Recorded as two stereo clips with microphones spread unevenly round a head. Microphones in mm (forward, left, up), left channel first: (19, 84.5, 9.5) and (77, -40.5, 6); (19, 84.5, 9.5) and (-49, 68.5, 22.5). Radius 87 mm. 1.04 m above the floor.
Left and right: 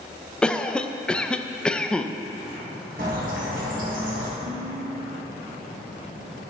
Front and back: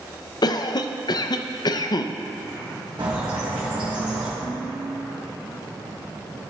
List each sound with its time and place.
0.4 s a cough: 30° left, 0.5 m
3.0 s a bird: 110° right, 1.3 m
4.4 s dishes clattering: 115° right, 2 m